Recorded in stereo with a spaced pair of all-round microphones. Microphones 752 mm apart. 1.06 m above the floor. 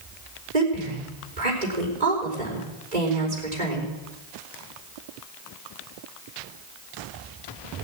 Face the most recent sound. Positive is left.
turn(degrees=-60)  # may be behind; listen again after turning